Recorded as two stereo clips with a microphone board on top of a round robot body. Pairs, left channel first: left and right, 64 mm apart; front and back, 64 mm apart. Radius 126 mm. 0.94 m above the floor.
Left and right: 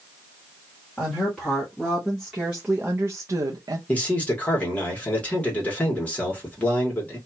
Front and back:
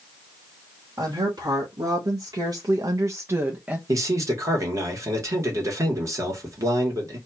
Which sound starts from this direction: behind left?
A man speaking, at 3.9 s.